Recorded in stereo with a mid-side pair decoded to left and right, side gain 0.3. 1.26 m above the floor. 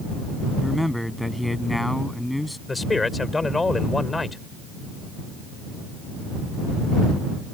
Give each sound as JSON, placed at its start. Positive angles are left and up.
{"t": 0.6, "sound": "a man speaking", "azimuth_deg": 10}
{"t": 2.7, "sound": "a man speaking", "azimuth_deg": 35}